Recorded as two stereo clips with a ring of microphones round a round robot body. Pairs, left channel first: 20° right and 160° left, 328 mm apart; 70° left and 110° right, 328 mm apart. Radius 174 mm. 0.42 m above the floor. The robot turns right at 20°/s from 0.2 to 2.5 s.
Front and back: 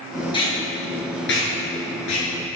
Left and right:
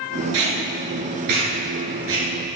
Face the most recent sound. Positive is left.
turn(degrees=-55)